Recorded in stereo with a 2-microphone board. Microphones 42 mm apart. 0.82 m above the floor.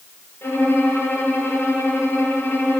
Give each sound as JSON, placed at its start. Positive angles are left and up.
{"t": 0.4, "sound": "a violin", "side_deg": 60, "distance_m": 6.5}